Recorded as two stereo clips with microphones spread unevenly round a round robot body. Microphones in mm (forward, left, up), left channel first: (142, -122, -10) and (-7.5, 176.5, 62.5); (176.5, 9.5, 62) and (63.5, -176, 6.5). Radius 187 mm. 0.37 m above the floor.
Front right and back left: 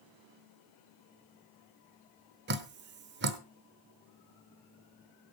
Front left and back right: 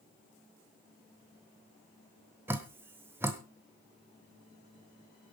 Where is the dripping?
Straight behind, 1.0 m.